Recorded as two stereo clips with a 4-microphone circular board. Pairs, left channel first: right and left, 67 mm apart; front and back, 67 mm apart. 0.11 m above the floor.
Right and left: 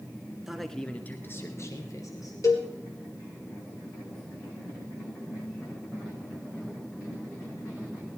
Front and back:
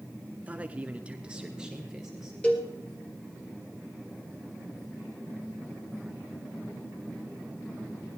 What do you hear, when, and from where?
0.5 s a man speaking: 165° left, 1.1 m; by 2.3 s 100° right, 2 m
2.4 s a cowbell: 70° right, 2.5 m